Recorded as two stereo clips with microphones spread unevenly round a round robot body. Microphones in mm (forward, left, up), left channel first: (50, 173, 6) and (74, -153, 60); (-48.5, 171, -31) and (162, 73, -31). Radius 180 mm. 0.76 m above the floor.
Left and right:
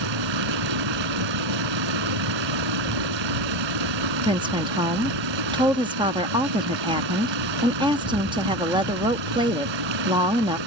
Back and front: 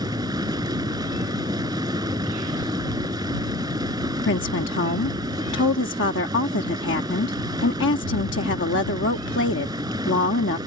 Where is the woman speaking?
165° right.